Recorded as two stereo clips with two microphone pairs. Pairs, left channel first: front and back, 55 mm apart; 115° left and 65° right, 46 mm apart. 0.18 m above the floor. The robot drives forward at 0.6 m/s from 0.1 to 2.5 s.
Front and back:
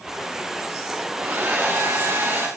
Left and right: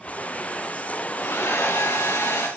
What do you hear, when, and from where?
1.2 s a hair dryer: 125° left, 8 m; by 2.5 s 130° left, 8.5 m